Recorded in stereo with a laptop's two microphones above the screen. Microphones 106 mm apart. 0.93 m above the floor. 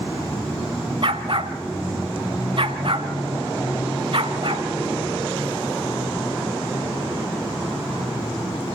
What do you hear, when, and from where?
1.0 s a dog barking: 55° right (ahead or behind), 1.2 m